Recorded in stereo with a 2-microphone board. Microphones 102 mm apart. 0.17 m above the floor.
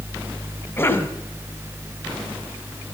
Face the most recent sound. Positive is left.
turn(degrees=20)  # may be behind; listen again after turning